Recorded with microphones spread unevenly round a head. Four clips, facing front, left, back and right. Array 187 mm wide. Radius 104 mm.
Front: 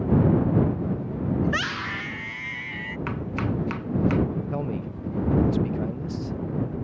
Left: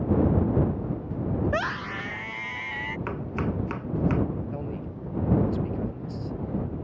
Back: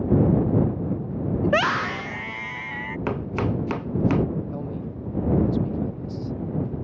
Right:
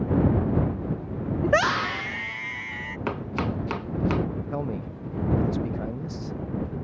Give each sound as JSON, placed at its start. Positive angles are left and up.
{"t": 1.4, "sound": "a scream", "azimuth_deg": -100}
{"t": 3.1, "sound": "chopping", "azimuth_deg": -165}
{"t": 4.5, "sound": "a man speaking", "azimuth_deg": -50}